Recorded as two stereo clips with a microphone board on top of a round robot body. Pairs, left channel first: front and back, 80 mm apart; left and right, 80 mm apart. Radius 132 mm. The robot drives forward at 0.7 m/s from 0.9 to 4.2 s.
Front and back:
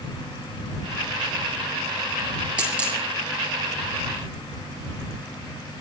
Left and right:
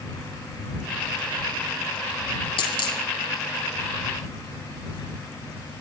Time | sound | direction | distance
2.6 | a dropped coin | 105° left | 6 m